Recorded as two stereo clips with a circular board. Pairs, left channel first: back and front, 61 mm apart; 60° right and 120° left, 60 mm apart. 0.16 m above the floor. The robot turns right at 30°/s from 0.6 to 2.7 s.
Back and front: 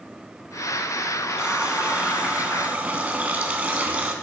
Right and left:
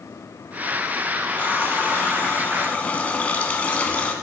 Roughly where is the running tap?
Ahead right.